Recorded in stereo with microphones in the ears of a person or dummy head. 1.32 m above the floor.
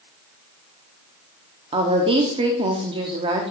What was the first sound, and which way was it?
A woman speaking, 25° right (ahead or behind).